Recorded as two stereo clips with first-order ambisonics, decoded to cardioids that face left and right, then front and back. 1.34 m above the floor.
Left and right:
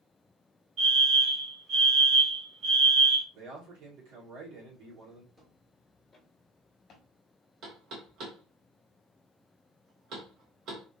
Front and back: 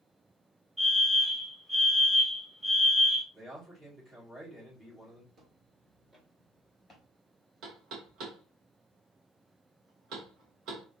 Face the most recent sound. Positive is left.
turn(degrees=-140)